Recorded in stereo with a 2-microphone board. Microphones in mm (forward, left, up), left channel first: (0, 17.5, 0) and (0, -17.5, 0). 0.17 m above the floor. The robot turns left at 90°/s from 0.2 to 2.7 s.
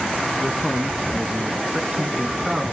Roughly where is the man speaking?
Ahead left.